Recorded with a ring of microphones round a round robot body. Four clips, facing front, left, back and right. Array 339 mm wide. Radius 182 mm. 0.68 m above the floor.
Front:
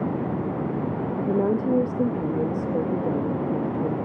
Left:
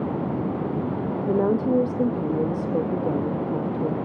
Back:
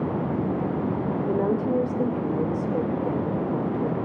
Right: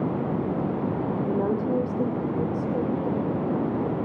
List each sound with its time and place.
1.3 s a woman speaking: 60° left, 1.0 m